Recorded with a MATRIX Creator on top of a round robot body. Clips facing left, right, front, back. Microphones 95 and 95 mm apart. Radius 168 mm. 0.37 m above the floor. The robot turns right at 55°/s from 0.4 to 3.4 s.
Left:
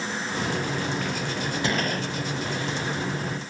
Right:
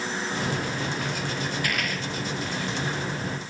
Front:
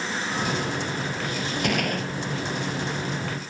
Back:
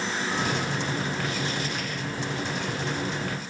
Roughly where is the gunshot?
Ahead.